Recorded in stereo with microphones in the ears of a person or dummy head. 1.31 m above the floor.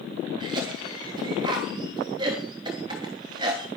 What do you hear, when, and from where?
0.4 s a cough: 30° right (ahead or behind), 3 m